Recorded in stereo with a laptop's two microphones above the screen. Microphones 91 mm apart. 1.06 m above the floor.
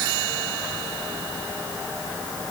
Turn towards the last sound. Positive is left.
No sound to turn to.